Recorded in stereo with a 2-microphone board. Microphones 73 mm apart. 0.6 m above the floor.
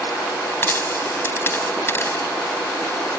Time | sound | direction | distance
0.6 | a dropped coin | 35° left (ahead or behind) | ?